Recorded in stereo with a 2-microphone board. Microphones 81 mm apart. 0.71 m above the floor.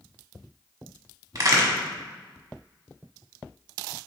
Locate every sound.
1.4 s a crack: 45° right (ahead or behind), 0.9 m